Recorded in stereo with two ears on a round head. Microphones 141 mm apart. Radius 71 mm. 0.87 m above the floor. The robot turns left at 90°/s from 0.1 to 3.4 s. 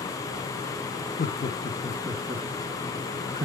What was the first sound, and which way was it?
Laughter, 50° left (ahead or behind).